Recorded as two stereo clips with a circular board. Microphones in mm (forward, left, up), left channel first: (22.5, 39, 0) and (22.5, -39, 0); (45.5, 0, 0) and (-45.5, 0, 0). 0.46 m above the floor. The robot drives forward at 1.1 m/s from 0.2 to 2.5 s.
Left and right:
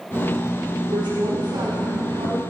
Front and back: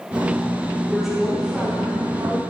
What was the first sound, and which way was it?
A woman speaking, 90° right.